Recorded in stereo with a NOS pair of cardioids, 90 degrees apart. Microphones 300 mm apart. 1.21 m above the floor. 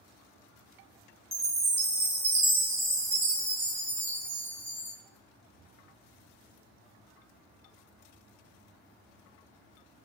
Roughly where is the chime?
Ahead.